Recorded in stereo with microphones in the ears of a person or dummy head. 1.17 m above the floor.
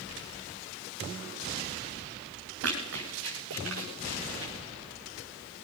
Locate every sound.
2.6 s running footsteps: 75° right (ahead or behind), 5.5 m; by 4.5 s 65° right (ahead or behind), 5.5 m